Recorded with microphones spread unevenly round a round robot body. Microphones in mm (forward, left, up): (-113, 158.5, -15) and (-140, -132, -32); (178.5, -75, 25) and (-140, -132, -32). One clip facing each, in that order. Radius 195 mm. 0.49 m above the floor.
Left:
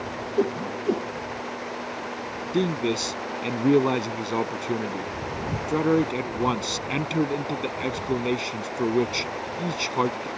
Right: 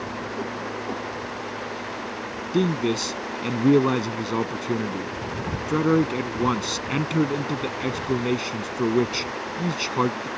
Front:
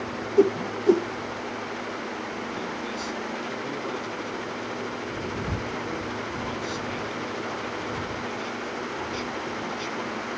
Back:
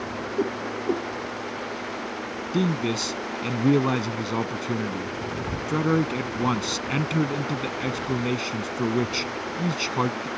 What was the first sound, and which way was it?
A whoosh, 35° left.